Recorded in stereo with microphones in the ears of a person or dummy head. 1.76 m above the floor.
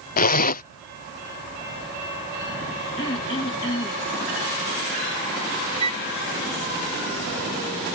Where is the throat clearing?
25° left (ahead or behind).